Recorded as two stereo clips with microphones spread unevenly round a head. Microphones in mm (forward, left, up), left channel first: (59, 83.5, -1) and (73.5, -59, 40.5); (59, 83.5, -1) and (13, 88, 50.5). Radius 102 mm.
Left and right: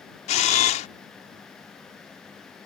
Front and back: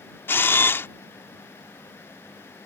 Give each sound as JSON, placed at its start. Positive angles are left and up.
{"t": 0.3, "sound": "a camera shutter", "azimuth_deg": 115}